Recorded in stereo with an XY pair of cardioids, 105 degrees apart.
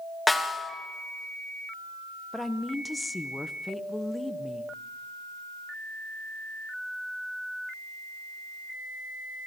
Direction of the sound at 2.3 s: 10° left.